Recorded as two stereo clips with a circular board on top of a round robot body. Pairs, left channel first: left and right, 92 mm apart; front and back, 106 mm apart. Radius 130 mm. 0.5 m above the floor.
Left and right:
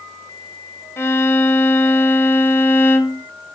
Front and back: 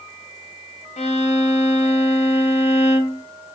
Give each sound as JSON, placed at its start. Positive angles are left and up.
{"t": 1.0, "sound": "a violin", "azimuth_deg": 25, "distance_m": 0.6}